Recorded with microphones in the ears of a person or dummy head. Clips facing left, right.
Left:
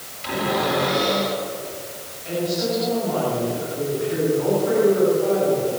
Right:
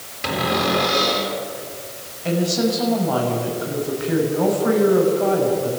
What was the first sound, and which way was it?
A cupboard door, 75° right (ahead or behind).